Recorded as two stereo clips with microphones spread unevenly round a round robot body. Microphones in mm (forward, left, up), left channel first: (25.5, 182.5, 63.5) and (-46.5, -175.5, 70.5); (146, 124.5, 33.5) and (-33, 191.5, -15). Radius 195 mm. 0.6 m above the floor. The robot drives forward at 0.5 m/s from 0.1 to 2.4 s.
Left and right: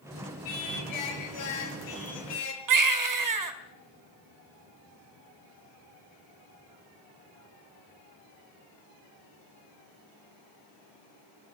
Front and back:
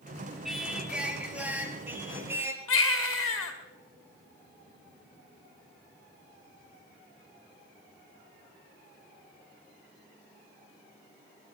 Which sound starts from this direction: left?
Singing, at 0.5 s.